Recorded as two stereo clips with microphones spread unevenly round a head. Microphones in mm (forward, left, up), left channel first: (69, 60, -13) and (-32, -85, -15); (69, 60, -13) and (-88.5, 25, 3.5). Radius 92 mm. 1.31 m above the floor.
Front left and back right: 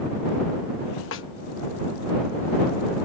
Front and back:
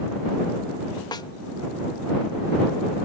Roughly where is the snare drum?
Left.